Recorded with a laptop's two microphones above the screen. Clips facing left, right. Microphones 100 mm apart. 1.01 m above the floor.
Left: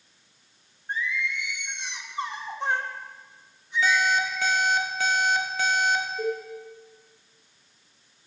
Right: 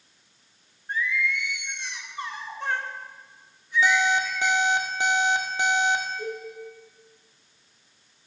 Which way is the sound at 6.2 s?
70° left (ahead or behind).